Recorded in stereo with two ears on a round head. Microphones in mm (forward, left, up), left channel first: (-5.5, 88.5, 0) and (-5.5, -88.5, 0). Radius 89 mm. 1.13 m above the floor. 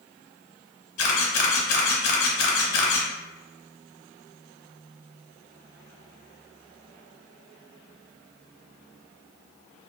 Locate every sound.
1.0 s a camera shutter: 55° left (ahead or behind), 0.7 m